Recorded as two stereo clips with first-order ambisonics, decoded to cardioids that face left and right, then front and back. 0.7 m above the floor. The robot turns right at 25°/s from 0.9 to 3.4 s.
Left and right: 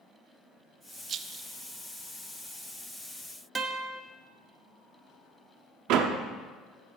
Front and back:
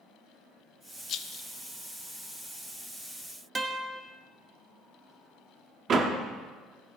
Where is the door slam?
120° right, 1.1 m.